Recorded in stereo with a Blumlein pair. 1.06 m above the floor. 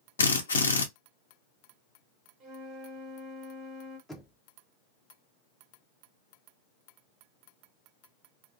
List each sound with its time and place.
0.2 s a drill: 70° left, 0.7 m
2.4 s a flute: 30° right, 1.2 m
4.1 s knocking: straight ahead, 0.7 m